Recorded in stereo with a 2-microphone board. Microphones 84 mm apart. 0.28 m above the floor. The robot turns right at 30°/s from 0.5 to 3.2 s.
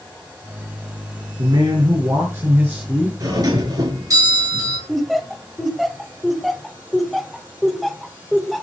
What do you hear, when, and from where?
1.4 s a man speaking: 65° right, 4 m; by 3.1 s 15° right, 4 m
3.2 s a doorbell: 45° right (ahead or behind), 7 m
4.9 s laughter: centre (ahead or behind), 1.0 m